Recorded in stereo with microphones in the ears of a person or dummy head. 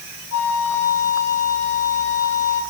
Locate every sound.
0.3 s a flute: 85° left, 4.5 m